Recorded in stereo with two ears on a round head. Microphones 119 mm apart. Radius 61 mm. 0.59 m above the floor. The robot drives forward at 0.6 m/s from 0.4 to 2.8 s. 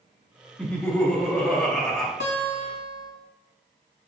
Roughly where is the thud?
No thud in this recording.